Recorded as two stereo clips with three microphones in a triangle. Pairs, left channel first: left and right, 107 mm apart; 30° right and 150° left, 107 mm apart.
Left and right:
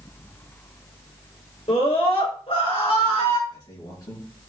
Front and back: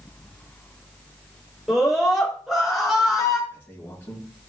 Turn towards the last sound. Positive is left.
turn(degrees=40)